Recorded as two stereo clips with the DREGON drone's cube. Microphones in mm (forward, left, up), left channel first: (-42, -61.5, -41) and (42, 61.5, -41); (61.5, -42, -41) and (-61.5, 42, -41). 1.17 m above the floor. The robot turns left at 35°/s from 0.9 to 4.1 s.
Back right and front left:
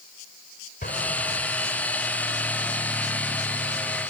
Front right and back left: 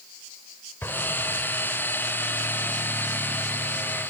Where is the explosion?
110° right; by 1.9 s 145° right.